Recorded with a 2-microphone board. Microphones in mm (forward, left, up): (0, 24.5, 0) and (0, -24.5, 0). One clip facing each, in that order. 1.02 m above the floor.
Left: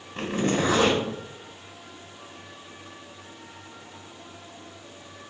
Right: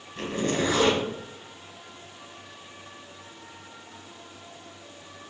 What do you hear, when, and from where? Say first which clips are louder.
0.1 s a zipper: left 2 dB; 65° left (ahead or behind), 1.8 m